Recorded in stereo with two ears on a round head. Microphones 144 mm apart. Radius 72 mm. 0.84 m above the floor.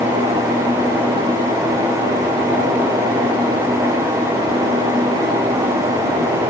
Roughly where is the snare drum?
No snare drum in this recording.